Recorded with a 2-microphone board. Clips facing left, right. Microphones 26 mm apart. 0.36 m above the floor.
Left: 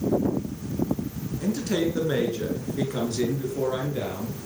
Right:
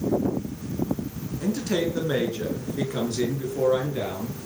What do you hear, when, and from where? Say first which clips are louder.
1.4 s a man speaking: even; 5° right (ahead or behind), 4 m; by 4.4 s 10° right (ahead or behind), 5.5 m